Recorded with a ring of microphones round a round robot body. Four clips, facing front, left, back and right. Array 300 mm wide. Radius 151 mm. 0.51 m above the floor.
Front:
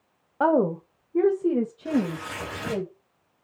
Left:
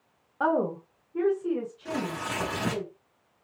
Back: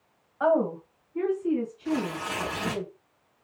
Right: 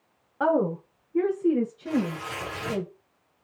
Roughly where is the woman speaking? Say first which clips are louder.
Right 2 dB, front 2 dB; ahead.